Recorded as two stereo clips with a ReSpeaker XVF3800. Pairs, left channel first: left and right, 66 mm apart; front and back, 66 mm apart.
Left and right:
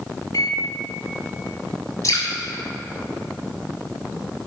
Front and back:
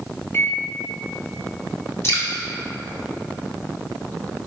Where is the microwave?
55° left, 0.6 m.